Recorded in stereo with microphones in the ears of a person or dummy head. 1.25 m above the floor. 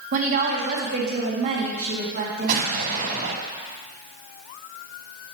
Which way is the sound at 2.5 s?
50° right (ahead or behind).